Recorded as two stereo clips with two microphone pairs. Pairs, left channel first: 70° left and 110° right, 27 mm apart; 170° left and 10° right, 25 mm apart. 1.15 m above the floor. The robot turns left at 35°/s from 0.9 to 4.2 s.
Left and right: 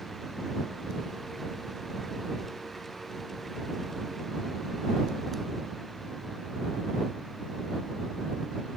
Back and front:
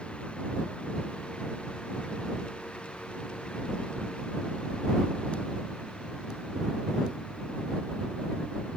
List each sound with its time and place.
Only background noise.